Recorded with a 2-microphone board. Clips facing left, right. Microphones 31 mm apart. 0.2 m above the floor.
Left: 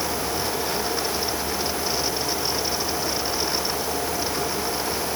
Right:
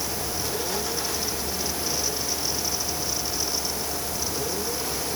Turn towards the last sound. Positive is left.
No sound to turn to.